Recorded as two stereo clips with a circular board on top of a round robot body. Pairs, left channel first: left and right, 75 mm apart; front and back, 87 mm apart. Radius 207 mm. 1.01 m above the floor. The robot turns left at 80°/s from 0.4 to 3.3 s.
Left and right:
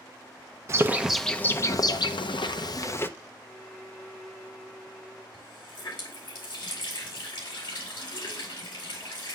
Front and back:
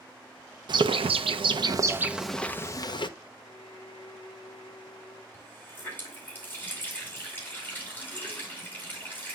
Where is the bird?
145° right, 0.7 m; by 3.1 s 25° left, 0.7 m.